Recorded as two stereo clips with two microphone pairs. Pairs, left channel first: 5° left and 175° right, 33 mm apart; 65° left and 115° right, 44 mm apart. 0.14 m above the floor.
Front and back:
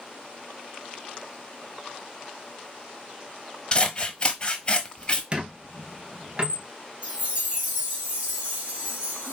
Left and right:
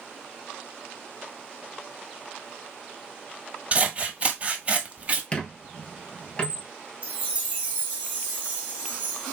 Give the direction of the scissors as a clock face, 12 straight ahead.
2 o'clock.